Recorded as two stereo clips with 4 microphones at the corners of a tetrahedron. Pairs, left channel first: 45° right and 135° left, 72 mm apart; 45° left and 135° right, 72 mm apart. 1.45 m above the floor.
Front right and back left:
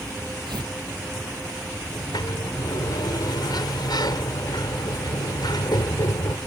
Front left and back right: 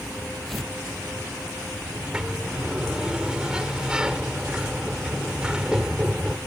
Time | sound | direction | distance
0.5 | tearing paper | 135° left | ?
1.9 | a sliding door | 55° right | ?